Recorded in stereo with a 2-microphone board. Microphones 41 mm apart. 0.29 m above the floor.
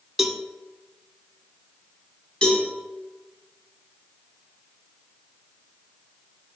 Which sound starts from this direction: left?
A cowbell, at 2.4 s.